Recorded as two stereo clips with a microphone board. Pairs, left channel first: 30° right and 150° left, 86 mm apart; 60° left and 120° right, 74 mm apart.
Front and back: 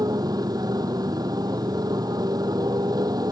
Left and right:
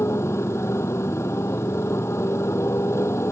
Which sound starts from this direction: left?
A motorcycle, at 0.0 s.